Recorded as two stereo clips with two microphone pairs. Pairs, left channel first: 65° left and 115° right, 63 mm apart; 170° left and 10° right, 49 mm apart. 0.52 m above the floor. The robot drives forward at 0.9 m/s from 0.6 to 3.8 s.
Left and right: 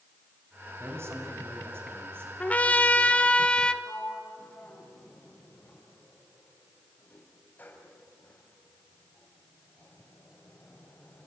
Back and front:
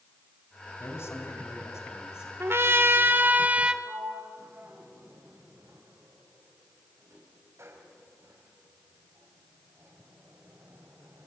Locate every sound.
0.8 s a man speaking: 160° right, 4 m; by 2.3 s 165° right, 5 m
2.4 s a trumpet: 5° left, 1.9 m; by 3.7 s 10° left, 1.2 m
3.8 s a sliding door: 5° left, 4 m